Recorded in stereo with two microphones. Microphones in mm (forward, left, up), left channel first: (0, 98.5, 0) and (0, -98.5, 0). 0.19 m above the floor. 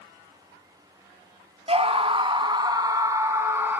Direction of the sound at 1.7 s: 30° right (ahead or behind).